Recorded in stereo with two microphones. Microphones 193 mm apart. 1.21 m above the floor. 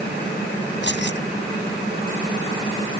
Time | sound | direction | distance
0.8 | keys jangling | 70° left (ahead or behind) | ?